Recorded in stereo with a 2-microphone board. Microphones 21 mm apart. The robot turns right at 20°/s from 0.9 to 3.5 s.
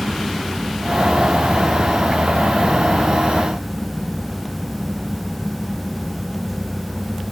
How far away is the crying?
No crying in this recording.